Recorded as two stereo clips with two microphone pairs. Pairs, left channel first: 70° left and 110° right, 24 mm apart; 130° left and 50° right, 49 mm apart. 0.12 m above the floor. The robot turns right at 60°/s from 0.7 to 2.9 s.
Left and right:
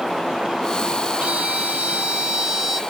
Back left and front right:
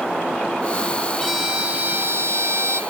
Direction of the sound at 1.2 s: 140° right.